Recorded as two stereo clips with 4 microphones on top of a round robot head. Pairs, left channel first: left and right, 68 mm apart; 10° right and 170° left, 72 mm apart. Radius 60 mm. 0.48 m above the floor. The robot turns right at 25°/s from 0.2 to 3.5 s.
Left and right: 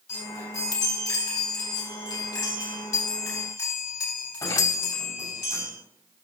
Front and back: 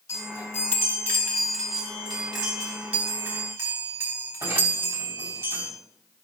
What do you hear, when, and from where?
0.1 s a chime: 30° left, 3 m; by 5.7 s 115° left, 3 m